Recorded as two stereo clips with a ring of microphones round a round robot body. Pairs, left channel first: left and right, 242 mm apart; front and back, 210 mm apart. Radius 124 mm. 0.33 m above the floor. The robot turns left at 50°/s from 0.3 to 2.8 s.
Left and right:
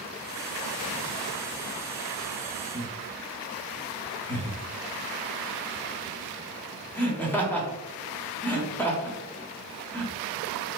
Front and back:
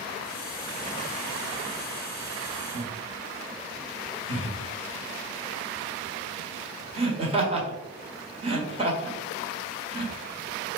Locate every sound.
2.7 s laughter: 165° left, 1.3 m